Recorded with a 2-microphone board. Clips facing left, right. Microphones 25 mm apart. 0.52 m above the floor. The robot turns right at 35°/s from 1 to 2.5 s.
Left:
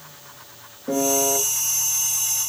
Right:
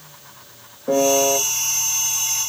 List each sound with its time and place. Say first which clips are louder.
0.9 s a piano: right 5 dB; 15° right (ahead or behind), 1.1 m; by 1.4 s 10° right (ahead or behind), 1.1 m